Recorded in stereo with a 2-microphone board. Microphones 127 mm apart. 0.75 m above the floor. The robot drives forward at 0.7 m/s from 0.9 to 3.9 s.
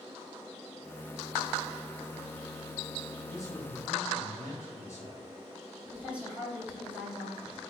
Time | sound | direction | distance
3.3 | a man speaking | 25° left (ahead or behind) | 4 m
5.8 | a woman speaking | 10° right (ahead or behind) | 3.5 m